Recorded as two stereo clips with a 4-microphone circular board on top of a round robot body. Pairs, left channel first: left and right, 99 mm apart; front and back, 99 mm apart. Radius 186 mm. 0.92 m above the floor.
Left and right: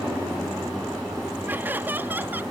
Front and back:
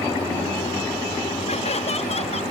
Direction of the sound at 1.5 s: 15° right.